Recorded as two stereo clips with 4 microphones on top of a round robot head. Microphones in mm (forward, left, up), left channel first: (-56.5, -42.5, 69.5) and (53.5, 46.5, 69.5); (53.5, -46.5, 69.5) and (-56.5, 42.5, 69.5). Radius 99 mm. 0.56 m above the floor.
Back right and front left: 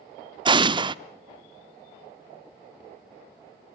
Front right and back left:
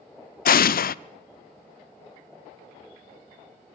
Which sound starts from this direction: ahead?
An explosion, at 0.5 s.